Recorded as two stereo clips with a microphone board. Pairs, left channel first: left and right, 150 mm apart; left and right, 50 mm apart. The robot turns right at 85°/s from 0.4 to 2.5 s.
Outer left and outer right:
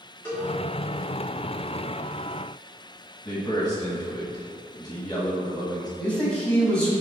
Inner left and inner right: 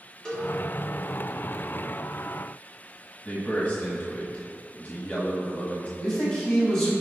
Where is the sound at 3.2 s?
30° left (ahead or behind), 1.2 m.